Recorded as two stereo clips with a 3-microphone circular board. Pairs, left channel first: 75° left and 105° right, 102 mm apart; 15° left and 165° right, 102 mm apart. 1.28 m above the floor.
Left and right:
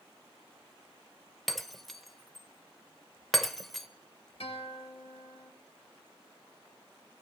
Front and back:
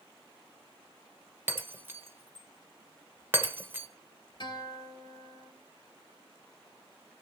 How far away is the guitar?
About 2.5 m.